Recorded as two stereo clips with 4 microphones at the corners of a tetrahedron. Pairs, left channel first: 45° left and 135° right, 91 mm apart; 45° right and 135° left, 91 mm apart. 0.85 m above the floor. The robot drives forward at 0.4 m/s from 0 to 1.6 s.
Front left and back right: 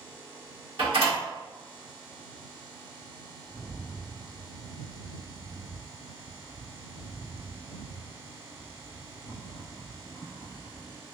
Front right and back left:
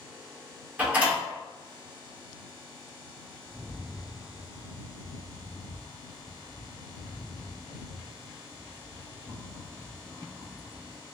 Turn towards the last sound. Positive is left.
turn(degrees=130)